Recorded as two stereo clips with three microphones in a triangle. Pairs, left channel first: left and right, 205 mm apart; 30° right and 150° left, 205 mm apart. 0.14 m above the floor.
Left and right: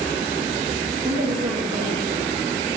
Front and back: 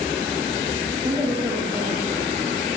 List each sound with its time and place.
1.0 s a woman speaking: 135° right, 3.5 m